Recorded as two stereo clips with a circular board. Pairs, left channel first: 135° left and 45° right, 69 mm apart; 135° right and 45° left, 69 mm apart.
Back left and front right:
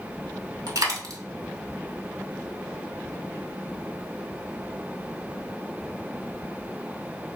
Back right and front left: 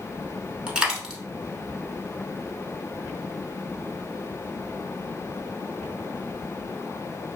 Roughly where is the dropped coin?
Ahead right.